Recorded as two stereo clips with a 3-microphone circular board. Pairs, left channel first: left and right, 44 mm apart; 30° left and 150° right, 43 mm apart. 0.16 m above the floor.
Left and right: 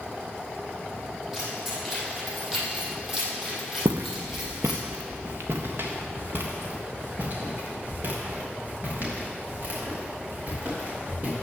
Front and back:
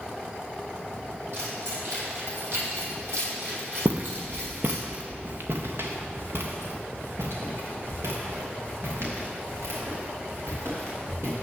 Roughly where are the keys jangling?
Behind.